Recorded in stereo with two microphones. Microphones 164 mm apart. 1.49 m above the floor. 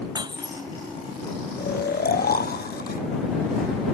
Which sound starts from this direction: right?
Breaking glass, at 0.1 s.